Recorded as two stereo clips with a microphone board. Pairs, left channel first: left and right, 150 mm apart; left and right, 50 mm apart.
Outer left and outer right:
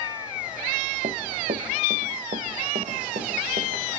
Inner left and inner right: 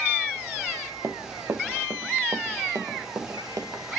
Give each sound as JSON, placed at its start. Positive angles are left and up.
{"t": 1.0, "sound": "running footsteps", "side_deg": -60, "distance_m": 1.9}